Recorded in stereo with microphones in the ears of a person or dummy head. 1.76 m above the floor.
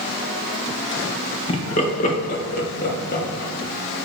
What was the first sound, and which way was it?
Laughter, 35° left (ahead or behind).